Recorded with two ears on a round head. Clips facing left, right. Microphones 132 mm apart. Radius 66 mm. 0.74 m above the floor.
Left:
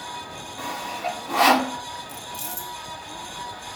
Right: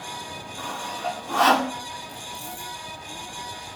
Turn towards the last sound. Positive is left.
turn(degrees=35)  # may be behind; listen again after turning